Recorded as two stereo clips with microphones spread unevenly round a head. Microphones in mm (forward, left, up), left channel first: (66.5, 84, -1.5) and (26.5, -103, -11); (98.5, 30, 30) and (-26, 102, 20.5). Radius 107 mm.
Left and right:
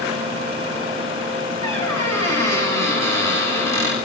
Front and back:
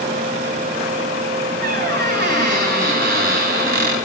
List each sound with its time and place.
1.6 s a squeak: 155° left, 6 m